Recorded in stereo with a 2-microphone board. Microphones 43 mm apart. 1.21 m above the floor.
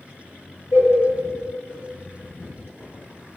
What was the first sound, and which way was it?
A cowbell, 70° left (ahead or behind).